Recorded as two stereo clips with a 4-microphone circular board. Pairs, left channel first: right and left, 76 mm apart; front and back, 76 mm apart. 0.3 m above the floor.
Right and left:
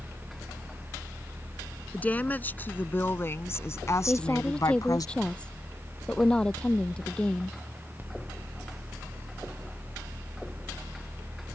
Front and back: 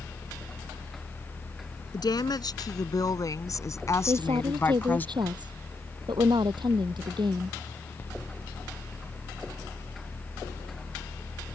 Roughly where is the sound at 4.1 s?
Behind.